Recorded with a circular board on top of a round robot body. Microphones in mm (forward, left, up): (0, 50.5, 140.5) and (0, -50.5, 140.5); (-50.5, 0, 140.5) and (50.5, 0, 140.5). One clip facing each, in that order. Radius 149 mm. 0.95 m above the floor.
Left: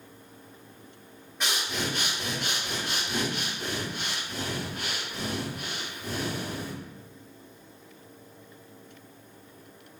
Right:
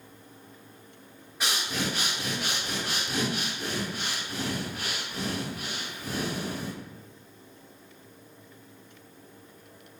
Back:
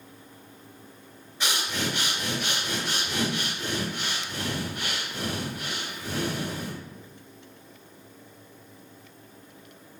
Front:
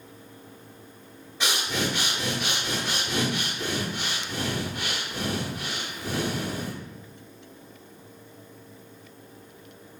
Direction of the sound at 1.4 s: Straight ahead.